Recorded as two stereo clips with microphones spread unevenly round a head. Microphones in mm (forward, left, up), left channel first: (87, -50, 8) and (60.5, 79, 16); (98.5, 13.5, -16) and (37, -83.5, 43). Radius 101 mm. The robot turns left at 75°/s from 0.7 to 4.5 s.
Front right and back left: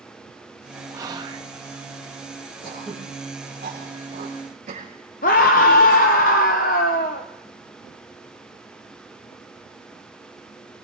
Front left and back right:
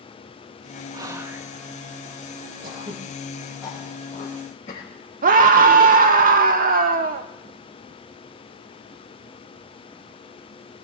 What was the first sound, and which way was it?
Whispering, 155° left.